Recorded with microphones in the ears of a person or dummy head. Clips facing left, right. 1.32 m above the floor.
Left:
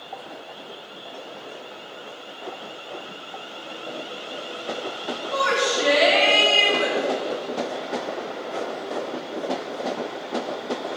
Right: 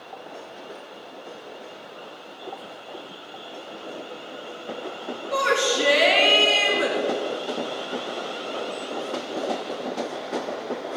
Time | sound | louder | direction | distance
5.3 | a shout | right 1 dB | 50° right (ahead or behind) | 2.5 m